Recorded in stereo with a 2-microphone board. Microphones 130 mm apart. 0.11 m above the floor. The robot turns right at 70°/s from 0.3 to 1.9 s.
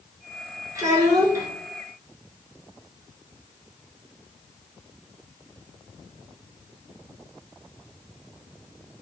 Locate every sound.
0.8 s a child speaking: 30° right (ahead or behind), 1.2 m; by 1.5 s 25° right (ahead or behind), 1.2 m